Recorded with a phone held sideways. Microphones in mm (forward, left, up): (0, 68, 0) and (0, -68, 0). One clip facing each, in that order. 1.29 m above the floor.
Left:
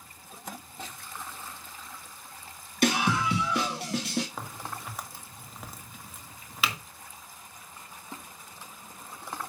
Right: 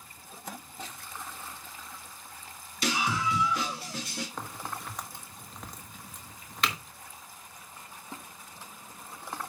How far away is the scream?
About 1.4 m.